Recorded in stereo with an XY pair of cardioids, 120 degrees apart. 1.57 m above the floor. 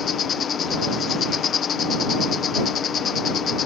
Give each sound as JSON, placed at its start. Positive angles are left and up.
{"t": 0.0, "sound": "an insect", "azimuth_deg": 45}